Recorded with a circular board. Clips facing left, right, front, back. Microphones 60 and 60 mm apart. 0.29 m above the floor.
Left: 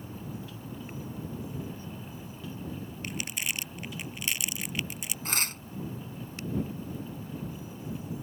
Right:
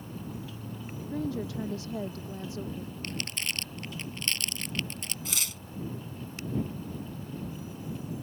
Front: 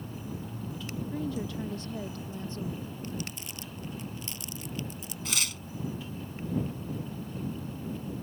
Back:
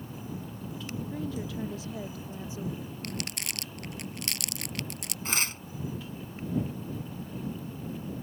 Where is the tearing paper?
125° left.